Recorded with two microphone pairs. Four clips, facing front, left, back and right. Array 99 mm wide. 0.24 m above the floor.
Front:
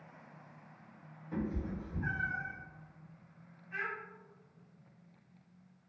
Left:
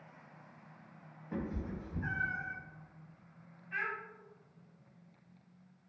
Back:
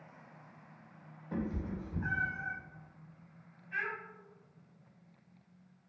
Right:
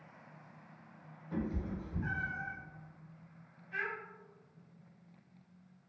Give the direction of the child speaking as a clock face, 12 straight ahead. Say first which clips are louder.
Left 1 dB, back 2 dB; 9 o'clock.